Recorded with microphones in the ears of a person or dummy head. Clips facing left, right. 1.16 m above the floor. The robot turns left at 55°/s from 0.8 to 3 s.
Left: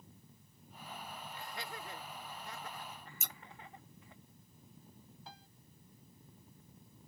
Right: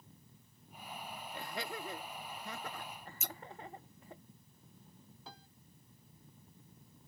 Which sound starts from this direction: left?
Scissors, at 3.2 s.